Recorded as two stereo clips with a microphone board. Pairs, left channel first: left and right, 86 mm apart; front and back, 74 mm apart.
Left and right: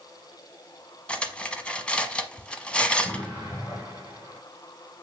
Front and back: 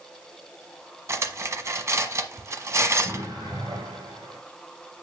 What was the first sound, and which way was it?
Cutlery clinking, 160° left.